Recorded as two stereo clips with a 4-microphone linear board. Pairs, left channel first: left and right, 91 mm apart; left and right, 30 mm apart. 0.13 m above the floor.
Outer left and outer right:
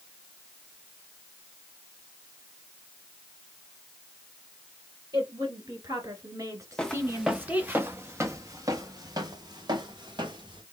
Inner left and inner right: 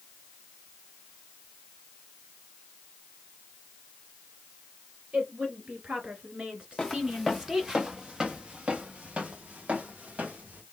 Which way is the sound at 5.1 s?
50° right (ahead or behind).